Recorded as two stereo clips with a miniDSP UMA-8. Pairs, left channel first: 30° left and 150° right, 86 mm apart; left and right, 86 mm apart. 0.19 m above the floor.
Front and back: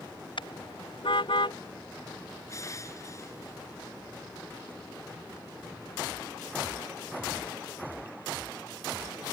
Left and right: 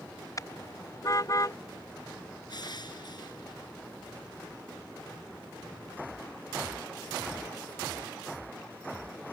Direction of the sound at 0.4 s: 40° left.